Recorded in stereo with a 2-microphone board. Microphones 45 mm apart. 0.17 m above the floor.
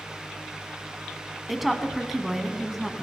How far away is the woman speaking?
About 1.2 m.